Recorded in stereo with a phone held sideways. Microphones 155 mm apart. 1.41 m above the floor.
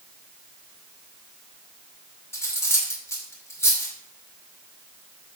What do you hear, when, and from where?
2.3 s cutlery clinking: 15° left (ahead or behind), 2.5 m